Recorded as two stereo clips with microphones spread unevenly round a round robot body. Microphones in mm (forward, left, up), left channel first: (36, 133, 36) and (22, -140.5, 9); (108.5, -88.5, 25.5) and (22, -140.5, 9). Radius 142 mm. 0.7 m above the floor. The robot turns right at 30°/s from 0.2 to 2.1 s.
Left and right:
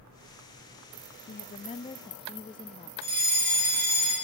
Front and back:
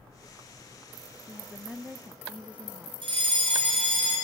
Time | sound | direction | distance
1.3 | a woman speaking | 130° left | 0.5 m
3.0 | a fire alarm | 140° right | 4 m